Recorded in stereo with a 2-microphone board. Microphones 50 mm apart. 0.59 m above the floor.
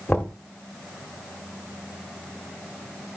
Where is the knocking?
30° left (ahead or behind), 1.1 m.